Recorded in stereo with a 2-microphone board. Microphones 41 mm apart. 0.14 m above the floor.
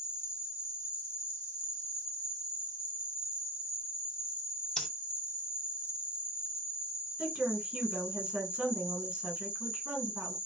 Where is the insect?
60° left (ahead or behind), 1.3 m.